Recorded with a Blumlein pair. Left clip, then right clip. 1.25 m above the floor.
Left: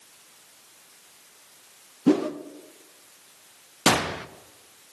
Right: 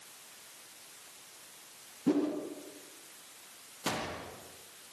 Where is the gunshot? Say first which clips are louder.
Left 14 dB; 55° left, 0.6 m.